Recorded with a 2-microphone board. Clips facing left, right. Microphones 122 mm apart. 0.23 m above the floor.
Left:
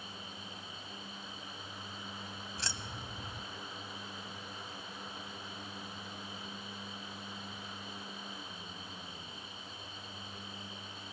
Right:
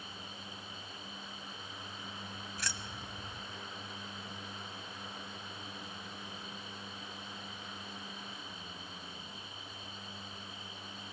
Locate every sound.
2.6 s keys jangling: 30° left (ahead or behind), 0.8 m